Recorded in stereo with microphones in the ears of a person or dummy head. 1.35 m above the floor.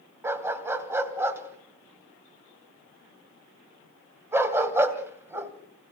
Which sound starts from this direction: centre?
A dog barking, at 0.2 s.